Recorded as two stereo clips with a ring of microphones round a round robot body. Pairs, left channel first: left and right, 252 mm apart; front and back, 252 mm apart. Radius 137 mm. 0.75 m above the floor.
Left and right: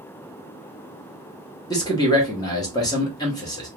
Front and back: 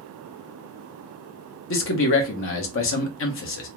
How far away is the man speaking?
About 0.7 m.